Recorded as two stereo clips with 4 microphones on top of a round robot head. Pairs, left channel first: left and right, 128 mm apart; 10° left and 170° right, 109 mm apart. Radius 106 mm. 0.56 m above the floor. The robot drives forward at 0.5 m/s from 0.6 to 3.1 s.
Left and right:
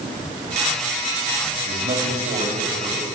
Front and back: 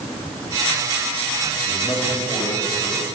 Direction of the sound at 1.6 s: 55° right.